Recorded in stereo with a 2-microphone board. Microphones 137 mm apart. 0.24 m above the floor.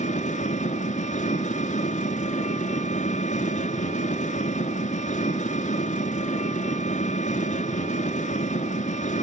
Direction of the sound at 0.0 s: 65° left (ahead or behind).